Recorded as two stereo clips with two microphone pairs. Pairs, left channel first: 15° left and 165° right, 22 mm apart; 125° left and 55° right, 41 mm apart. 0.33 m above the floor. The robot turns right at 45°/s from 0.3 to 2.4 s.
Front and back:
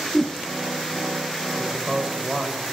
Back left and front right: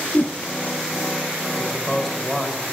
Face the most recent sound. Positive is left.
turn(degrees=-140)